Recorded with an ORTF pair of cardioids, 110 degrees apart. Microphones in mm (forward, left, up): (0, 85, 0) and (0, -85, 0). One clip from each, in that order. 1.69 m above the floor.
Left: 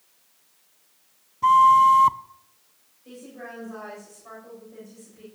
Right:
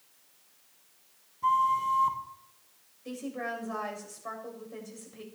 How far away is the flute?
About 0.7 m.